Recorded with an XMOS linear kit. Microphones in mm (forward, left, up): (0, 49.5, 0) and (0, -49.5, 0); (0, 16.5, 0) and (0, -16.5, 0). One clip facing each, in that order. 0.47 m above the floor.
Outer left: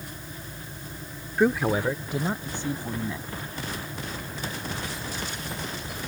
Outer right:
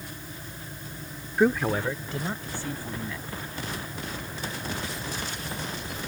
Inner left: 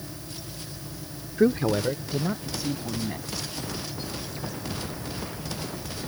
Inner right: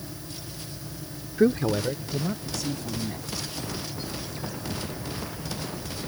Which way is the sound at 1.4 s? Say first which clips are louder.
Outer left 1 dB, even; 5° right (ahead or behind).